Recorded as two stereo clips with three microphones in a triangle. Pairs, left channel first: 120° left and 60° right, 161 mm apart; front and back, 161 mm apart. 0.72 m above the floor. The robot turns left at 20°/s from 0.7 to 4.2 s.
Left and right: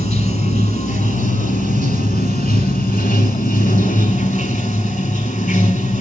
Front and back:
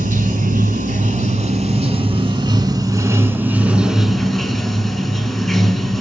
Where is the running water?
160° left, 1.3 m; by 6.0 s 90° left, 1.3 m.